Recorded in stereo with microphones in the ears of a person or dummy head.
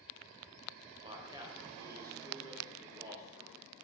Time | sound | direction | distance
1.0 | a man speaking | 25° right (ahead or behind) | 1.2 m